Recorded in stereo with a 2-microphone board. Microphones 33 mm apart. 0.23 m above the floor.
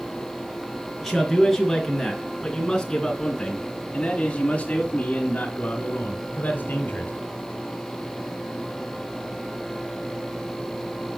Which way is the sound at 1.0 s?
5° left (ahead or behind).